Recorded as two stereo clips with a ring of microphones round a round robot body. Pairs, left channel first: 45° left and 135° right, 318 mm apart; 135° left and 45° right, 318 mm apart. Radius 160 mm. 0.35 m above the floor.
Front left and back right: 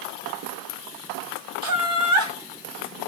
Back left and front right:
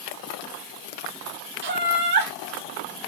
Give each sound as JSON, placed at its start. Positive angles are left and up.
{"t": 1.6, "sound": "laughter", "azimuth_deg": -110, "distance_m": 2.5}